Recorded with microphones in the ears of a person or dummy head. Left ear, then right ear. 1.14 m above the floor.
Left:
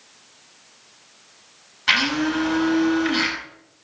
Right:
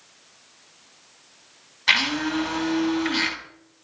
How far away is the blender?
About 6.5 m.